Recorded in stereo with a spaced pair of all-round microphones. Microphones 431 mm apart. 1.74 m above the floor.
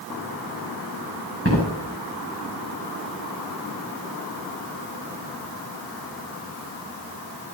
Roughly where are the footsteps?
Right.